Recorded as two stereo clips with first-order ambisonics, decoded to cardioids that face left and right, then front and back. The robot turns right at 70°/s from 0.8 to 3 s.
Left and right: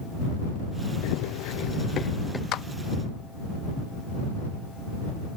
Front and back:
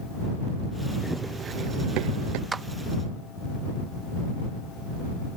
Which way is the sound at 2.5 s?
105° left.